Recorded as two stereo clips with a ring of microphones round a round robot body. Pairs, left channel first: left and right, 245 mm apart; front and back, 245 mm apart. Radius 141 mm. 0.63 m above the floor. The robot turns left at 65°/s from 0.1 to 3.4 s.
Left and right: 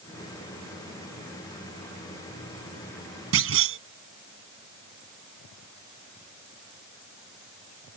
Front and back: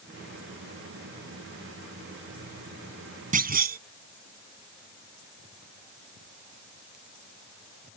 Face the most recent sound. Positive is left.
turn(degrees=-125)